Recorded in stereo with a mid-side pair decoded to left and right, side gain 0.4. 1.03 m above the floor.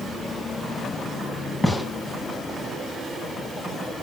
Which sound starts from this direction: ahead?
A gunshot, at 1.6 s.